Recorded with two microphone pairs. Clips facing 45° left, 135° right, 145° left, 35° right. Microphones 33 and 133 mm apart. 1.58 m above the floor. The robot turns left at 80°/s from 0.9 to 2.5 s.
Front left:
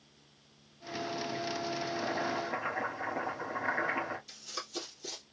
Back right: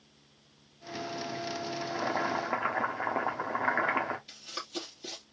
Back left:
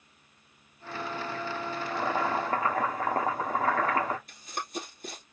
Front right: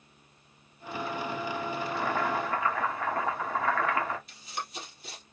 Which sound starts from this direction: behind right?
Boiling, at 1.8 s.